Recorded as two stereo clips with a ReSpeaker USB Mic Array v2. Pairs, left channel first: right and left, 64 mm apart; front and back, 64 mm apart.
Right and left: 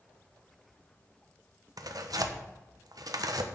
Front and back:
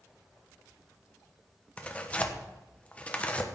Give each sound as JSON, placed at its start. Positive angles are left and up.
{"t": 1.8, "sound": "tearing paper", "azimuth_deg": 70, "distance_m": 1.2}